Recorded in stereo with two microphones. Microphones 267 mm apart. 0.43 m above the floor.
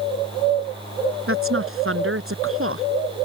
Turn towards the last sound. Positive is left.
turn(degrees=-50)  # may be behind; listen again after turning